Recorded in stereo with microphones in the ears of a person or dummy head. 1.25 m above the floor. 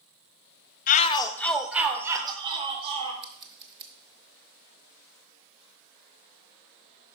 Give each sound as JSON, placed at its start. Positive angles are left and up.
{"t": 0.9, "sound": "a shout", "side_deg": 40, "distance_m": 0.8}
{"t": 3.2, "sound": "scissors", "side_deg": -30, "distance_m": 1.0}